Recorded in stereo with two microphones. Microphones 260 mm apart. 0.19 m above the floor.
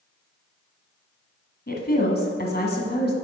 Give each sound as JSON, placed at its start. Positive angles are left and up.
{"t": 1.7, "sound": "a woman speaking", "side_deg": 35, "distance_m": 1.5}